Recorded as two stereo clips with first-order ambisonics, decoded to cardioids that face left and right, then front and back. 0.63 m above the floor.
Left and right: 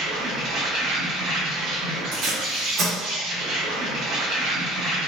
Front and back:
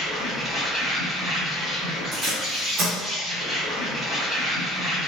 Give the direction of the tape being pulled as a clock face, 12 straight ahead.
4 o'clock.